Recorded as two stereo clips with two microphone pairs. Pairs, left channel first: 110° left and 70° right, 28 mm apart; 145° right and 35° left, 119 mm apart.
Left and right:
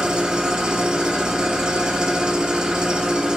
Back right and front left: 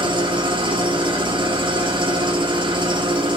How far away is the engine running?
About 0.7 m.